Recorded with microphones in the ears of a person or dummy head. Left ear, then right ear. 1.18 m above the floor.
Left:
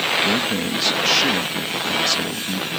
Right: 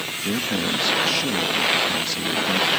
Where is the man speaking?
15° left (ahead or behind).